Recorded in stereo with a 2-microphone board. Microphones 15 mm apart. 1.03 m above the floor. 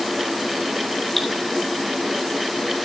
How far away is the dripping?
About 2.5 m.